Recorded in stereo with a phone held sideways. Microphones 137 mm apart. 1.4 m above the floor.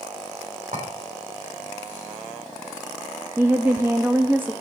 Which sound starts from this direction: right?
A clink, at 0.7 s.